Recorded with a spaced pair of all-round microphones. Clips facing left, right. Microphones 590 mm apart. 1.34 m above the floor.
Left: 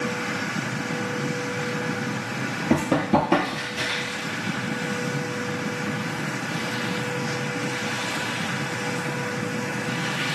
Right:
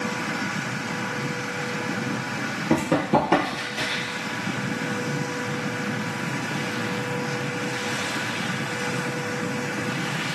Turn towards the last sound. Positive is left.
turn(degrees=-10)  # may be behind; listen again after turning